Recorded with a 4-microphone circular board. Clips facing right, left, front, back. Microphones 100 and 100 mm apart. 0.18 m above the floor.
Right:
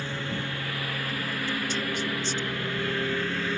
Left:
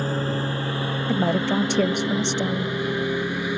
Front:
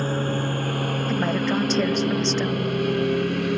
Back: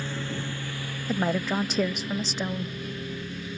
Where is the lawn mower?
40° left; by 3.6 s 15° left.